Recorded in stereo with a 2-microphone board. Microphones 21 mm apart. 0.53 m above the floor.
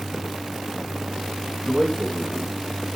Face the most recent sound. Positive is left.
turn(degrees=5)  # may be behind; listen again after turning